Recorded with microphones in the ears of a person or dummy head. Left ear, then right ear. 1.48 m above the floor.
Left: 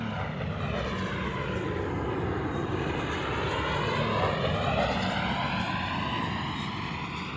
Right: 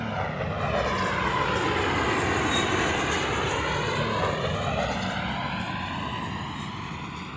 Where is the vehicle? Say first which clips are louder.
Right 5 dB; 25° right (ahead or behind); by 7.4 s centre (ahead or behind).